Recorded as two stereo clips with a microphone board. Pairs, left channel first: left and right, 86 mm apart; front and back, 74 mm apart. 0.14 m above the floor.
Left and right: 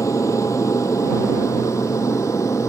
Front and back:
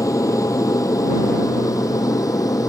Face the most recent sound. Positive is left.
turn(degrees=40)